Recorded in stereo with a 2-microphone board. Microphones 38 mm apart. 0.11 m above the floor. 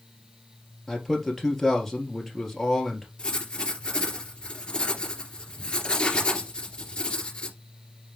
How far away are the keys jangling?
I don't hear keys jangling.